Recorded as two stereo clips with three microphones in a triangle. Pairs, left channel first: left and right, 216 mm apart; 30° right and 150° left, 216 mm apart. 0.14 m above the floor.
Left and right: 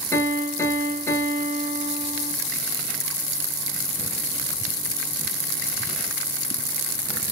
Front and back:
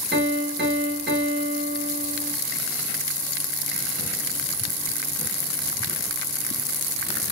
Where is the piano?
165° left, 0.9 m.